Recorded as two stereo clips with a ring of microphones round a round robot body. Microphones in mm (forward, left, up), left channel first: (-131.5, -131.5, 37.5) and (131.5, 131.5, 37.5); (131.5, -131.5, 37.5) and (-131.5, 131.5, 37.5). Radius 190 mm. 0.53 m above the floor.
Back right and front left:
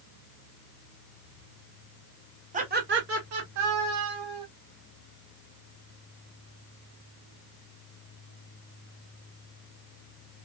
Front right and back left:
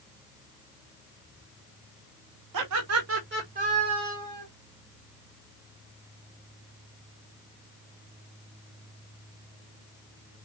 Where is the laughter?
110° left, 2.0 m; by 4.5 s 45° left, 2.5 m.